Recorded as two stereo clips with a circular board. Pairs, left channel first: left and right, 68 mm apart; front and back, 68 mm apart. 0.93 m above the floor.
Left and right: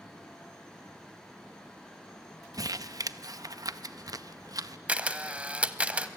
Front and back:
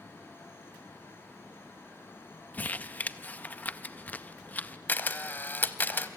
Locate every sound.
2.5 s crumpling: 65° right, 0.6 m
4.9 s a camera shutter: 35° right, 0.8 m